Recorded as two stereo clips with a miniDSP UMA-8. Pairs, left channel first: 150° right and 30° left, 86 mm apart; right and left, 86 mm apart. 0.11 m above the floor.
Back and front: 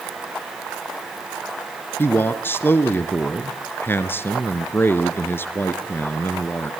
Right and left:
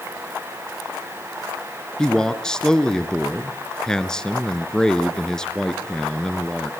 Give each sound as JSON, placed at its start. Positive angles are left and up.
{"t": 2.0, "sound": "a man speaking", "azimuth_deg": -160, "distance_m": 1.1}